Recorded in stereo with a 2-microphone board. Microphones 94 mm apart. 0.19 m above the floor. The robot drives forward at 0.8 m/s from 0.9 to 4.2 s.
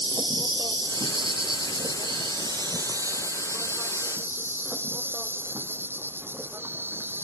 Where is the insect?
55° right (ahead or behind); by 7.2 s 25° right (ahead or behind).